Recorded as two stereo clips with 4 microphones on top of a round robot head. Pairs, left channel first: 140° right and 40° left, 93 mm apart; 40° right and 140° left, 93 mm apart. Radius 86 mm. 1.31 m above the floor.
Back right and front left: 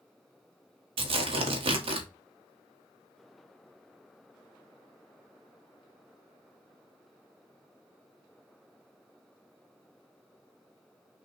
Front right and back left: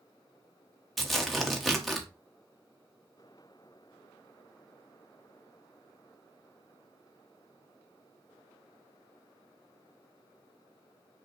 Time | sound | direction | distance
1.0 | tearing paper | 50° left | 1.1 m